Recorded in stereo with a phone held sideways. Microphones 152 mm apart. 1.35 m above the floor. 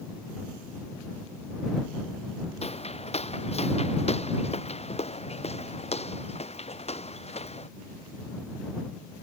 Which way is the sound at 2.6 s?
45° left (ahead or behind).